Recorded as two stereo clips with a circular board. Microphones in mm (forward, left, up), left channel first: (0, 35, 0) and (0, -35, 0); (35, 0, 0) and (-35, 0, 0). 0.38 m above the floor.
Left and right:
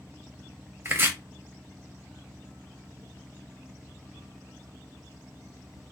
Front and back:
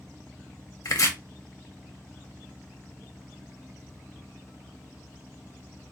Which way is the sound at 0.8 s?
35° right.